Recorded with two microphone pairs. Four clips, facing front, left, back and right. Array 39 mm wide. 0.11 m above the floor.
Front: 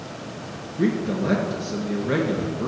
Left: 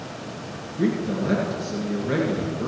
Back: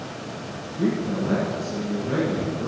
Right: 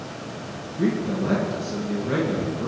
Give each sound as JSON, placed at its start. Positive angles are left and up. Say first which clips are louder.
{"t": 0.8, "sound": "a man speaking", "louder": "even, front 1 dB", "azimuth_deg": 15, "distance_m": 2.0}